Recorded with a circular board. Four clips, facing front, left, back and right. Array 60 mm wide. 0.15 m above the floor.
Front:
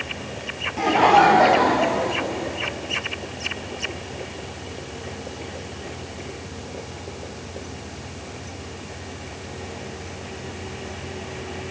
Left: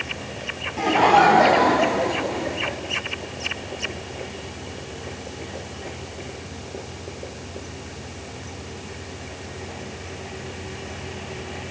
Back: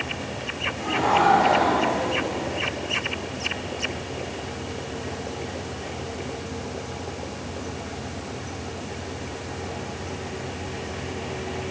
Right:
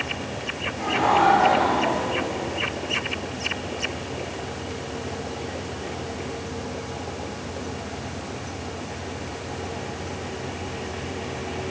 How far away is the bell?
No bell in this recording.